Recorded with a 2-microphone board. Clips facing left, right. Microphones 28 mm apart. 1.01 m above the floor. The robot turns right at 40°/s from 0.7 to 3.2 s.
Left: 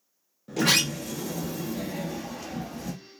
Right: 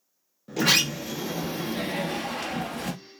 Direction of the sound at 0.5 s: Straight behind.